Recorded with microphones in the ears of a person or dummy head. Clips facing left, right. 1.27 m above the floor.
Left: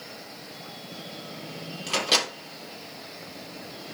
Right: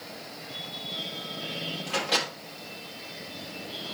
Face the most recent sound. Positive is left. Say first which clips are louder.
# left 2 dB
turn(degrees=50)  # may be behind; listen again after turning